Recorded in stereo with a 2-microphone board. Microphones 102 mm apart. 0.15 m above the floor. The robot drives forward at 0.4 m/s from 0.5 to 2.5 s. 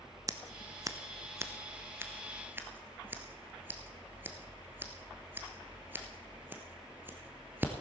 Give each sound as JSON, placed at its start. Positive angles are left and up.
{"t": 0.3, "sound": "scissors", "side_deg": -35, "distance_m": 0.7}